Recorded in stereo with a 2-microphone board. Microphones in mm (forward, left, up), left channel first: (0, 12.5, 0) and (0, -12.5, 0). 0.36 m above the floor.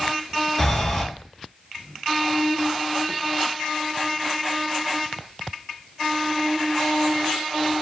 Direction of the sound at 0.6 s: 5° left (ahead or behind).